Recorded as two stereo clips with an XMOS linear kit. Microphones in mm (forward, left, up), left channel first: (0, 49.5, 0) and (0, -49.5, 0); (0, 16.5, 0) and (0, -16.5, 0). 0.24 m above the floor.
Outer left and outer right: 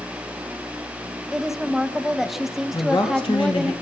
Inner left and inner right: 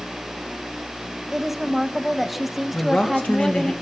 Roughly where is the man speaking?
Left.